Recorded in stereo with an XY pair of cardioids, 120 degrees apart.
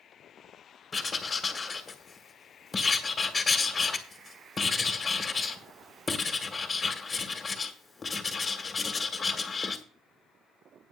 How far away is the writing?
About 1.9 m.